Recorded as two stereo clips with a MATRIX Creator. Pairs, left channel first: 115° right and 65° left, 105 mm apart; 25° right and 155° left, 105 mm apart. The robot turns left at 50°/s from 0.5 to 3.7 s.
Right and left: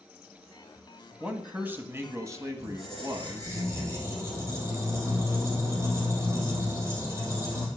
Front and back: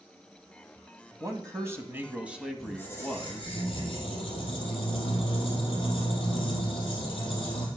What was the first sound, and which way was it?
A man speaking, 145° left.